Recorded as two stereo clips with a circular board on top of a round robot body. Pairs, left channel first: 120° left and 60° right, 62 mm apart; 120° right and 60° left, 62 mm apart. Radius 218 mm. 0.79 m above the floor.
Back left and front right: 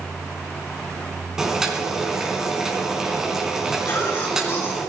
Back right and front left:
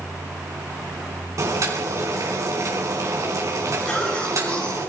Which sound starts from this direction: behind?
A cough, at 3.9 s.